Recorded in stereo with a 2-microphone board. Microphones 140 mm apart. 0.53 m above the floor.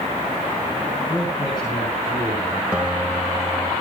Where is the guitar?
5° right (ahead or behind), 1.4 m.